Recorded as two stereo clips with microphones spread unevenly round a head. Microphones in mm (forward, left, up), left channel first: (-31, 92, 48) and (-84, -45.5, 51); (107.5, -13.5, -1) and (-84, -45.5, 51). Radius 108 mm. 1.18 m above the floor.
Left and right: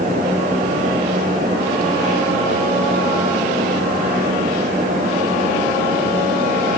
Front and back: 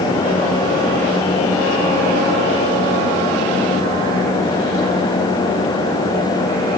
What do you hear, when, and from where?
Only background noise.